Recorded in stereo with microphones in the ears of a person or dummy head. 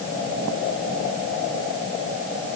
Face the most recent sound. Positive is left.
No sound to turn to.